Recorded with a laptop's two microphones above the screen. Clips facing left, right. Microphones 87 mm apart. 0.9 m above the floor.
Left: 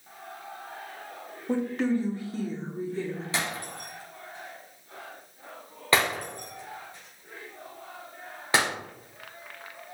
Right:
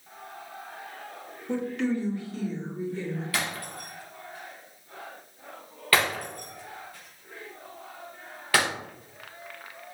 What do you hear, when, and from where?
1.5 s a woman speaking: 35° left (ahead or behind), 1.4 m
3.3 s breaking glass: 20° left (ahead or behind), 3.5 m